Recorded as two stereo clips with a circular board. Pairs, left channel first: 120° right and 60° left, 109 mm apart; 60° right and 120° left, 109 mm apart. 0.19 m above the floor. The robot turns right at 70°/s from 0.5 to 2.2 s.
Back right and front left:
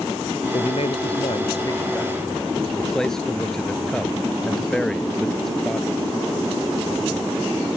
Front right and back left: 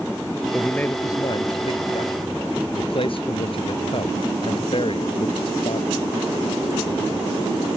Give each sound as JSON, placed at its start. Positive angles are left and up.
{"t": 0.5, "sound": "a man speaking", "azimuth_deg": -150}